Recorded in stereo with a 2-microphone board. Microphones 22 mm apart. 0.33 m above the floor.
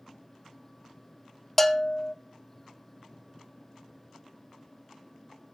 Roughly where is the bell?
Centre.